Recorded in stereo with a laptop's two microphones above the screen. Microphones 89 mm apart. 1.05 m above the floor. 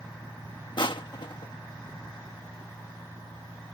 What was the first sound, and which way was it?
Crushing, 60° left (ahead or behind).